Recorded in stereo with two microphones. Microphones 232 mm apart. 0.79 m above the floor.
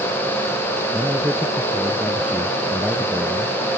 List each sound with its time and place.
0.9 s a man speaking: 5° right (ahead or behind); by 3.6 s centre (ahead or behind)